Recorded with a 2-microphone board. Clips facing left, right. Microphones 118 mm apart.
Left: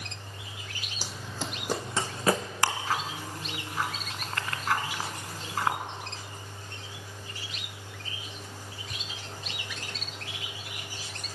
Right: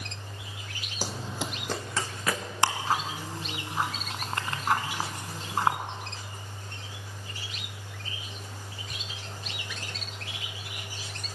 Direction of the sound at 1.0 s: 45° right (ahead or behind).